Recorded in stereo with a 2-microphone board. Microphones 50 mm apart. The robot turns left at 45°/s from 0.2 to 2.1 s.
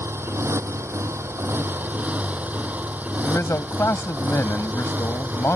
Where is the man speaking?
80° left.